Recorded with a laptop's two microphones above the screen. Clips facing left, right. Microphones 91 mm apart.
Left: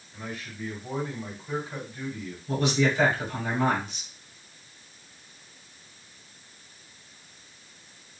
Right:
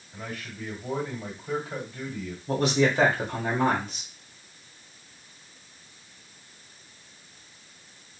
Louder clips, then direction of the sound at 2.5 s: Right 2 dB; 45° right (ahead or behind).